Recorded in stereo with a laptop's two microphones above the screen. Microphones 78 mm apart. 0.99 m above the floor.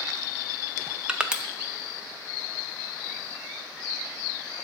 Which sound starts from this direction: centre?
Crushing, at 1.1 s.